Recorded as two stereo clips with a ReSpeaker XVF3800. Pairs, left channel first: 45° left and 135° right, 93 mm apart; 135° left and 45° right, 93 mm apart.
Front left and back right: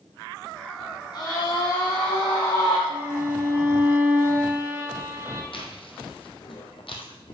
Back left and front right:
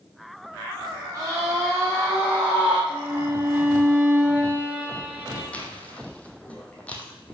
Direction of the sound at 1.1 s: 10° left.